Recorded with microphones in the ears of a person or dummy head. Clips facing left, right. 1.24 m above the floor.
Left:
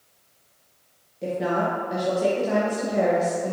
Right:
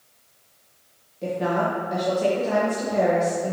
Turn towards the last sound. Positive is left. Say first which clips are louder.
# right 1 dB
turn(degrees=5)  # may be behind; listen again after turning